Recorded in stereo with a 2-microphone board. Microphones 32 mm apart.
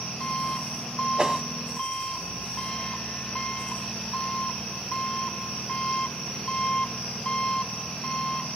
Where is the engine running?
25° left (ahead or behind).